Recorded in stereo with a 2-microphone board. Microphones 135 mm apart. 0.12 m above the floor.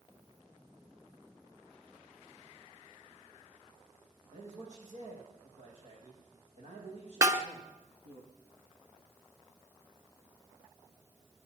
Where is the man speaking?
65° right (ahead or behind), 6.5 m; by 8.2 s 55° right (ahead or behind), 4.5 m.